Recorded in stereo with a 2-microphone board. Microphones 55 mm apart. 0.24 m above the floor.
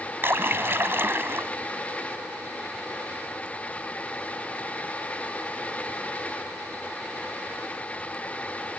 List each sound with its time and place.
0.2 s a splash: 45° right (ahead or behind)